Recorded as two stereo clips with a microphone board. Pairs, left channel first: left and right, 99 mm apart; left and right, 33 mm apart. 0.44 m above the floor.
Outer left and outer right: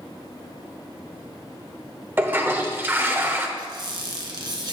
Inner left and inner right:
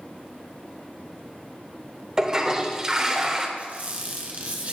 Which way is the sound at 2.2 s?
20° right (ahead or behind).